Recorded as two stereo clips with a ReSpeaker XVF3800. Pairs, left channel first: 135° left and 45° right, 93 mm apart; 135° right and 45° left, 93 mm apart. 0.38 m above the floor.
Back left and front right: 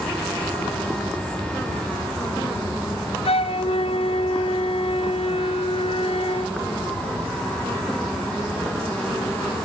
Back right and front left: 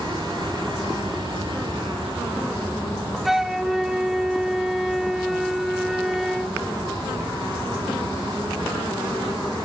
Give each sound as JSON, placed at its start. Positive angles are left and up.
{"t": 3.2, "sound": "a flute", "azimuth_deg": 130, "distance_m": 1.0}